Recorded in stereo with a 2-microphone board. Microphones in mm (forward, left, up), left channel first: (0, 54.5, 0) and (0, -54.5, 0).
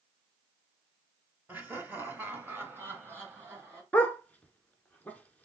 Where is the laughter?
15° right (ahead or behind), 1.1 m; by 3.8 s 20° right (ahead or behind), 2.5 m.